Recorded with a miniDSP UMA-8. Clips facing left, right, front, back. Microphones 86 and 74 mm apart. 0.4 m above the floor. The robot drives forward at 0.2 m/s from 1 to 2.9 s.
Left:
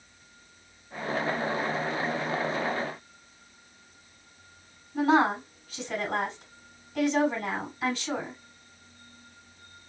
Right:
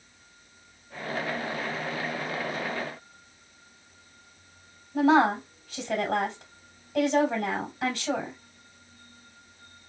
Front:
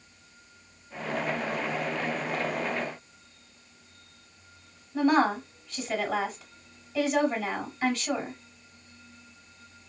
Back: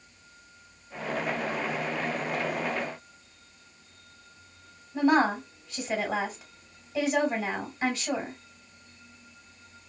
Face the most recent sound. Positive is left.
turn(degrees=-105)